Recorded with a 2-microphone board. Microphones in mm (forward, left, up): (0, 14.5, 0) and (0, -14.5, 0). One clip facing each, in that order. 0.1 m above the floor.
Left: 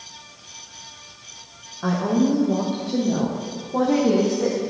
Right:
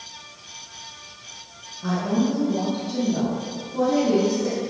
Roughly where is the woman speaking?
Left.